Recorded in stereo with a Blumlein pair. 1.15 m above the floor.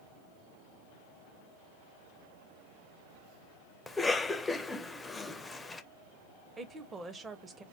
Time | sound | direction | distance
3.9 | a cough | 10° left | 0.5 m
6.6 | a woman speaking | 15° right | 0.7 m